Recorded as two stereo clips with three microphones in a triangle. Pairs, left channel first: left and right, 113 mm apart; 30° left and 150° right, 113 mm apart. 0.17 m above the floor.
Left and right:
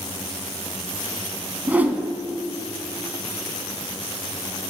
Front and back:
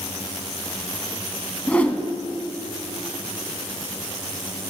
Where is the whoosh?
35° right, 0.7 m.